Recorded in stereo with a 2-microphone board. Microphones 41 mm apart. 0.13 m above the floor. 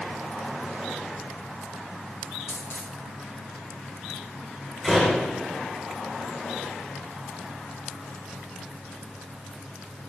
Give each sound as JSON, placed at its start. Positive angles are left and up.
{"t": 2.5, "sound": "a dropped coin", "side_deg": 60, "distance_m": 8.5}
{"t": 4.8, "sound": "a door slam", "side_deg": 20, "distance_m": 7.0}